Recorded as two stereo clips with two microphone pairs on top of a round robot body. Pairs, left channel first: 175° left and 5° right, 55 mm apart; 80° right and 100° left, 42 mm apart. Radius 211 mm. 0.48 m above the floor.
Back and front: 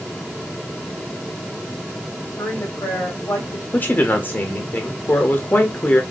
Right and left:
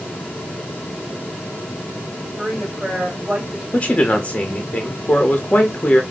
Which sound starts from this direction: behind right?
A man speaking, at 3.7 s.